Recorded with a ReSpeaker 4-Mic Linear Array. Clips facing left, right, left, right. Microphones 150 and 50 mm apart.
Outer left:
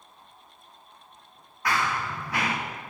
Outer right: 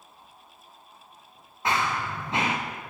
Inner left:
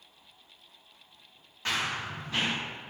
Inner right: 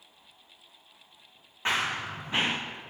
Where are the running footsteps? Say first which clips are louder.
Outer right 1 dB, inner right 3 dB; 25° right (ahead or behind), 0.9 m.